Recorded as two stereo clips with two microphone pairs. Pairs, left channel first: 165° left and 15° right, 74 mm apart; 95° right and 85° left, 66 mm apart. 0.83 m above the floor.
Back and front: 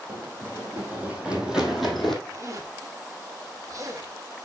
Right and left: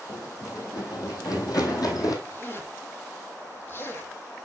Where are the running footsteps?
70° right, 2.5 m; by 2.1 s 110° right, 2 m.